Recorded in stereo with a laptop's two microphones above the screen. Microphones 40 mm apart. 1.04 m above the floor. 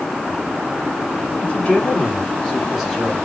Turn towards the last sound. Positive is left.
turn(degrees=0)  # may be behind; listen again after turning